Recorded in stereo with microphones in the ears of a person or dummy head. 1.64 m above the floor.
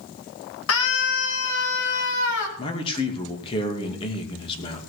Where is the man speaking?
30° left (ahead or behind), 2.5 m.